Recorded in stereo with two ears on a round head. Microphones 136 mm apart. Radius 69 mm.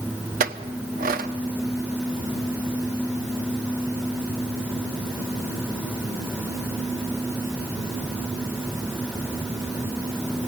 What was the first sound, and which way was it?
A clink, 65° right (ahead or behind).